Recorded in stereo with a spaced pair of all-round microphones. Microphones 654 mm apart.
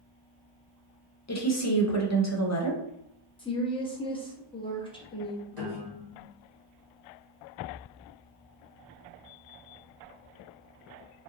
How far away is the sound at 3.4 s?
About 0.7 m.